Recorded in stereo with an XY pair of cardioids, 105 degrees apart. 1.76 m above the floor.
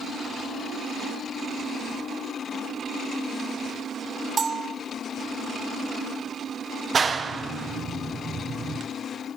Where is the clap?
35° right, 1.3 m.